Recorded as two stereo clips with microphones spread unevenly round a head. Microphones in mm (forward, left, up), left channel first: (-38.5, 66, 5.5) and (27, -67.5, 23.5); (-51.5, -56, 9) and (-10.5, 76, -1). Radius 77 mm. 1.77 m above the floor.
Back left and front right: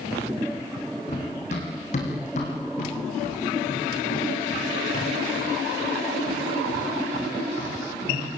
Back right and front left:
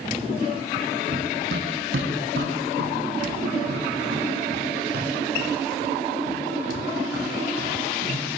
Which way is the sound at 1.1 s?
70° left.